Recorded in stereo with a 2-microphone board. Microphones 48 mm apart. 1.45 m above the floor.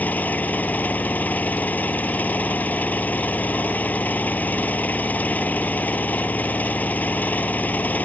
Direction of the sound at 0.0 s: 35° left (ahead or behind).